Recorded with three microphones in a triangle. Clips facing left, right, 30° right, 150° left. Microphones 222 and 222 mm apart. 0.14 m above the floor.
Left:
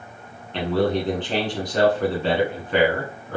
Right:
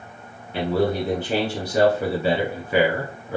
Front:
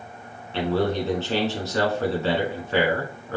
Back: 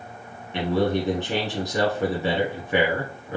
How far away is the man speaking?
About 1.2 m.